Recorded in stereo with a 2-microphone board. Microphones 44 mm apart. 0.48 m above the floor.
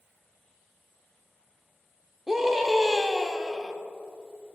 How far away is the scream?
About 1.1 m.